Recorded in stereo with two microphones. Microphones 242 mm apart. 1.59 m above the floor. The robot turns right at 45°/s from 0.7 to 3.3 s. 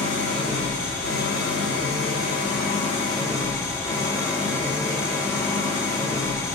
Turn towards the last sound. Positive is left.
turn(degrees=170)